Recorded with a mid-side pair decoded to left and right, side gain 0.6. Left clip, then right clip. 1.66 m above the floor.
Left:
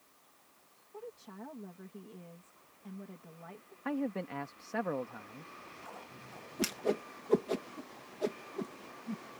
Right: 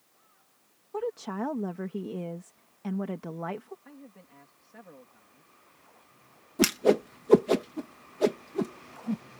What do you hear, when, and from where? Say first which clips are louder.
0.9 s a woman speaking: right 15 dB; 65° right
3.9 s a man speaking: left 15 dB; 65° left
6.6 s a whoosh: right 10 dB; 50° right